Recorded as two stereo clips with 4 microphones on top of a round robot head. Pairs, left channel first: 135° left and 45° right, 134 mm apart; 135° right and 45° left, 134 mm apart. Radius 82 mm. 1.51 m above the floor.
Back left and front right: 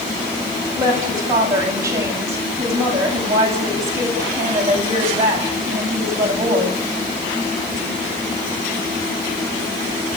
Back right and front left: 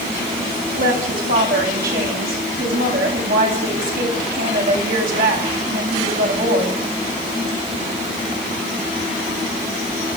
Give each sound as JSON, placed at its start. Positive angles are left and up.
{"t": 0.7, "sound": "a woman speaking", "azimuth_deg": 25, "distance_m": 10.0}